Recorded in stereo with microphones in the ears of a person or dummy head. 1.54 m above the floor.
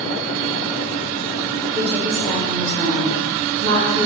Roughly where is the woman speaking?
Right.